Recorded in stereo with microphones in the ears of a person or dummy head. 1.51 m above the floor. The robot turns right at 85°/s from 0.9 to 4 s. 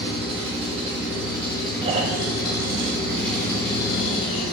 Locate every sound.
0.0 s an engine running: 40° right, 1.9 m; by 4.5 s 135° right, 1.9 m
1.8 s snoring: 160° right, 0.5 m; by 4.5 s 25° left, 0.5 m